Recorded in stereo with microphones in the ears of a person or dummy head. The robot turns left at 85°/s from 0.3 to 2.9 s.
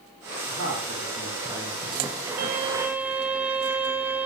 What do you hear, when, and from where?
0.5 s a man speaking: 85° right, 3 m; by 2.2 s 130° left, 3 m
2.4 s a violin: 130° right, 0.7 m; by 4.3 s 175° right, 0.7 m